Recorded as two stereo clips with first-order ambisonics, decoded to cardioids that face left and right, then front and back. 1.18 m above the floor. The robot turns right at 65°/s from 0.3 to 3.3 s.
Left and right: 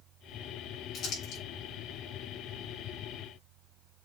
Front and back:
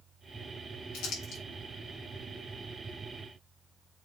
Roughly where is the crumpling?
Ahead left.